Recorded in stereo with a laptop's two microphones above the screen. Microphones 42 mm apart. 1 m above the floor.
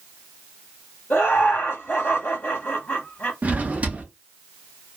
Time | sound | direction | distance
1.1 | laughter | 50° left (ahead or behind) | 1.3 m
3.4 | a drawer | 35° right (ahead or behind) | 0.6 m